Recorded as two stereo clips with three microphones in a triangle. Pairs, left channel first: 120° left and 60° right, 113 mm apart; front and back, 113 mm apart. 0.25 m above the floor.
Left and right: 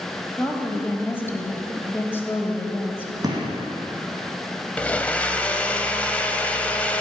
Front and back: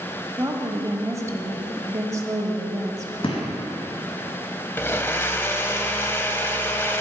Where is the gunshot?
15° right, 2.0 m.